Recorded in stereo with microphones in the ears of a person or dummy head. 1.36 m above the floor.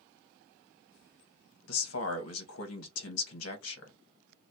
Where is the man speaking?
65° left (ahead or behind), 1.0 m.